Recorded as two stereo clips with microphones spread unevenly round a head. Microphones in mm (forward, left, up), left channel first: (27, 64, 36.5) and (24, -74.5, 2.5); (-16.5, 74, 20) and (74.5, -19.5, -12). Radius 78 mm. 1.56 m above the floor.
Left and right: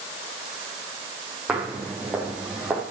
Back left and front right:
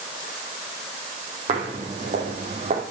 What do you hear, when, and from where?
1.5 s footsteps: 5° right, 4.5 m; by 2.8 s straight ahead, 4 m